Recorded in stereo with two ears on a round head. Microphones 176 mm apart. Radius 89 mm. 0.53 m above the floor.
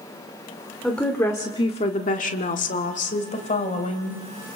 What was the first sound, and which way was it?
A woman speaking, 5° left (ahead or behind).